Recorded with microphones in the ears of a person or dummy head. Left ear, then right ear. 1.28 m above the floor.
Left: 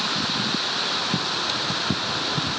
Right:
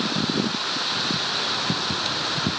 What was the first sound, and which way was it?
Only background noise.